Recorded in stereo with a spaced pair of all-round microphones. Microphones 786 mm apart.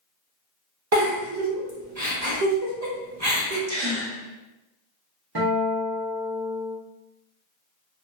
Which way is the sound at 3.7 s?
55° right (ahead or behind).